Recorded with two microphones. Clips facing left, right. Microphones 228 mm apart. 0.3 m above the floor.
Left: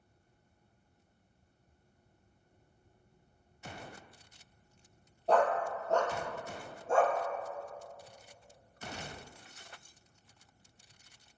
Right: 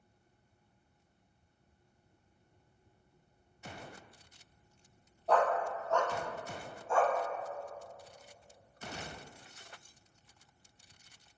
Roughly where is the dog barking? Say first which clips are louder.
Left 1 dB; left.